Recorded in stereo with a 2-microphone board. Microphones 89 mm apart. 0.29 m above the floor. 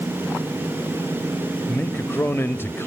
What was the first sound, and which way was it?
A man speaking, 25° left (ahead or behind).